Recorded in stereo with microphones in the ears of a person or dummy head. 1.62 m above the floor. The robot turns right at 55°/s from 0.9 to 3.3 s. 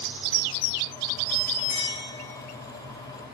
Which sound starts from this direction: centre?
A clink, at 1.7 s.